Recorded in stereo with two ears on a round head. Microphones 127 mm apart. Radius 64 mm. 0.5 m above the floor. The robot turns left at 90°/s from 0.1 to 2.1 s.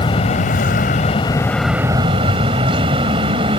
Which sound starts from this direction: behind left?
An aircraft, at 0.0 s.